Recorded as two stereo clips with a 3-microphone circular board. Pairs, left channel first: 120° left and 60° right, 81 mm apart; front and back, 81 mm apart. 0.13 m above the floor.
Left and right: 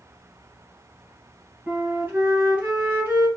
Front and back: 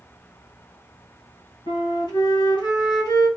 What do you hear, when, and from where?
1.7 s a flute: 5° right, 1.9 m